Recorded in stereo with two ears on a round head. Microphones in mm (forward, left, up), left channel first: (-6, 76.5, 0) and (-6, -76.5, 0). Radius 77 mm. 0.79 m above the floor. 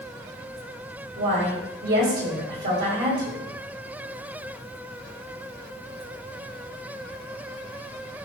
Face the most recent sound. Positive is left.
turn(degrees=-65)  # may be behind; listen again after turning